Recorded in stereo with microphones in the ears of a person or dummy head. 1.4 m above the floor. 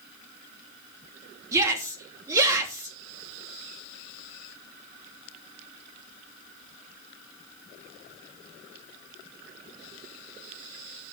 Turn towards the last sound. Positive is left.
turn(degrees=-15)  # may be behind; listen again after turning